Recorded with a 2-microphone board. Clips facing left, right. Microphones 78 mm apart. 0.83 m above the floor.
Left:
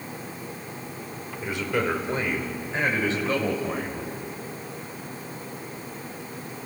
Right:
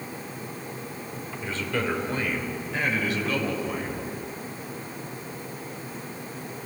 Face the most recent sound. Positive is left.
turn(degrees=35)  # may be behind; listen again after turning